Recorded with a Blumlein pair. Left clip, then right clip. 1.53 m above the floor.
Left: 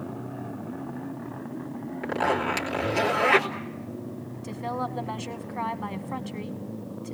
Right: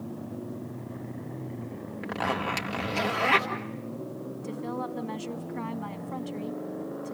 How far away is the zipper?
About 2.5 m.